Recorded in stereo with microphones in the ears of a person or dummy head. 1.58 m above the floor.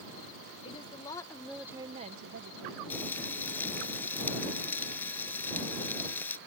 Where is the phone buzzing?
I don't hear a phone buzzing.